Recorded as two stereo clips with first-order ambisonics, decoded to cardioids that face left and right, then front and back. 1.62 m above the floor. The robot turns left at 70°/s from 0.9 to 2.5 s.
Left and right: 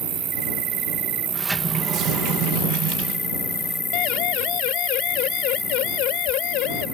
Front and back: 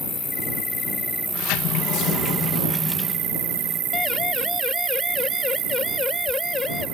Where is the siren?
65° left; by 6.8 s 70° left.